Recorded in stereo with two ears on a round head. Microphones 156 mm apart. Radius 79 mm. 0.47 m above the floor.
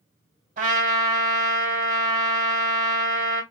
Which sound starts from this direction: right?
A trumpet, at 0.6 s.